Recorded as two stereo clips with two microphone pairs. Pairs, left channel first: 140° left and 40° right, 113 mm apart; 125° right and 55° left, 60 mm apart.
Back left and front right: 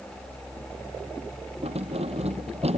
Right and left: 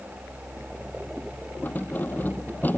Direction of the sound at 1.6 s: 65° right.